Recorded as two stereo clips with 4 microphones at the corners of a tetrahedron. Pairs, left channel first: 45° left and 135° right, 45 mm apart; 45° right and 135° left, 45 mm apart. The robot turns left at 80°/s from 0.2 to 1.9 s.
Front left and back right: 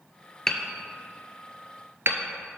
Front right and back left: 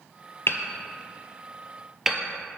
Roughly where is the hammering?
Ahead right.